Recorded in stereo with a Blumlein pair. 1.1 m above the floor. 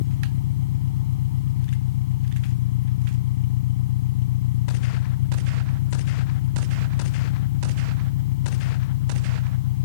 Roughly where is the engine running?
Ahead left.